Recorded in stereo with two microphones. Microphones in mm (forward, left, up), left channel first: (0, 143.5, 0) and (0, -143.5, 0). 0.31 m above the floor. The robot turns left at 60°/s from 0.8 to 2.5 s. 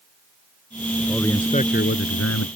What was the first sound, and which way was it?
A man speaking, 175° right.